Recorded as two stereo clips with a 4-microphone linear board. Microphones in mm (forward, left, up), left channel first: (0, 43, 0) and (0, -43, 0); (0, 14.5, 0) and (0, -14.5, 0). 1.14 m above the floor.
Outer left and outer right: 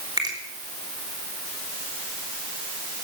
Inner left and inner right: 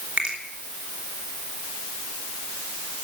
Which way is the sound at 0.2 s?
50° right (ahead or behind).